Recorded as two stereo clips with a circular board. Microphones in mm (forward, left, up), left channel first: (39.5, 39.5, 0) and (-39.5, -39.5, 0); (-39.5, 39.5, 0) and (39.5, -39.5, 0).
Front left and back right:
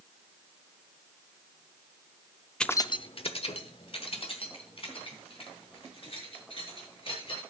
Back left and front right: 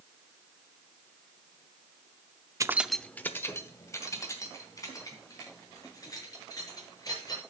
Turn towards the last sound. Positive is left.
turn(degrees=80)